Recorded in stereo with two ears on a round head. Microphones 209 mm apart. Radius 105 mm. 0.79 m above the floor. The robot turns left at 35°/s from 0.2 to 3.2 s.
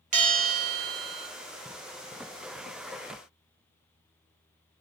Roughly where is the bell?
Ahead right.